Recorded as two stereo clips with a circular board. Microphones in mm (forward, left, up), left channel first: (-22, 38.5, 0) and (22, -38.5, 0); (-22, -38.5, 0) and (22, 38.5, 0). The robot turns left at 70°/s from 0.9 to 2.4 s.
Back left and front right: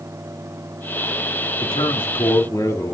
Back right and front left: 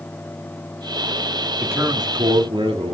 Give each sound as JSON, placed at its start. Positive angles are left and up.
{"t": 1.6, "sound": "a man speaking", "azimuth_deg": 130, "distance_m": 3.0}